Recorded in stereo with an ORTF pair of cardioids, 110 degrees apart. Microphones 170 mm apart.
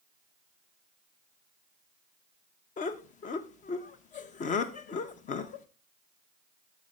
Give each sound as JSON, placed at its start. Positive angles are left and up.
{"t": 2.8, "sound": "laughter", "azimuth_deg": 50, "distance_m": 1.0}